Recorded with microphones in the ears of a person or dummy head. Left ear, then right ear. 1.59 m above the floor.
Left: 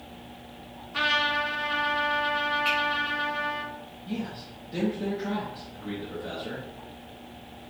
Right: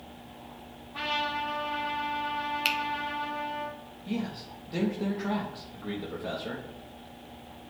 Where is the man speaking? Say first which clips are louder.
Right 1 dB; 25° right (ahead or behind), 0.6 m.